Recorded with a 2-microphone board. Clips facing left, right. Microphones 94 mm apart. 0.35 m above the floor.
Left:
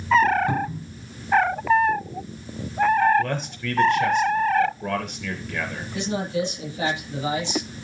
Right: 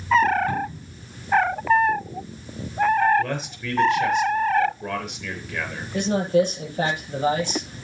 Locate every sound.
0.5 s a cupboard door: 20° left (ahead or behind), 3.5 m
3.2 s a man speaking: centre (ahead or behind), 5.5 m
5.9 s a man speaking: 50° right (ahead or behind), 8 m